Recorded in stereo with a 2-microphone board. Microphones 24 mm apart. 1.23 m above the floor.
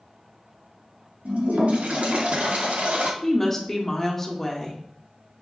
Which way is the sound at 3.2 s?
15° left (ahead or behind).